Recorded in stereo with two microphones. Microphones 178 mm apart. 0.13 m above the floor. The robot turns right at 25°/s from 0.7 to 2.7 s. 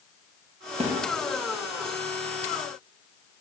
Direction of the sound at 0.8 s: 35° right (ahead or behind).